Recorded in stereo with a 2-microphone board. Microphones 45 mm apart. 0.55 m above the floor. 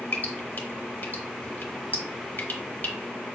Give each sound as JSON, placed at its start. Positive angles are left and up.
{"t": 0.1, "sound": "dripping", "side_deg": 50, "distance_m": 1.0}